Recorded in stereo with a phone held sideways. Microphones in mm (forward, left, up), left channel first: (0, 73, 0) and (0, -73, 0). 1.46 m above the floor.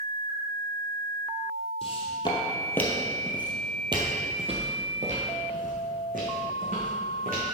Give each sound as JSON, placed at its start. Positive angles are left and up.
{"t": 1.8, "sound": "footsteps", "side_deg": 45, "distance_m": 1.9}